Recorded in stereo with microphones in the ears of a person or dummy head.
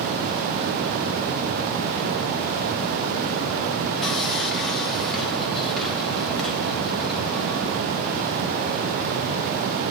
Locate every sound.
4.0 s sawing: centre (ahead or behind), 1.5 m